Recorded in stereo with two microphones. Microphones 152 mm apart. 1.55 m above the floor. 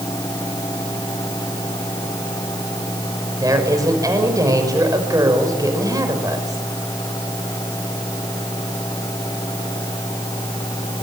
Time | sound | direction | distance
3.4 | a woman speaking | 25° right (ahead or behind) | 5.5 m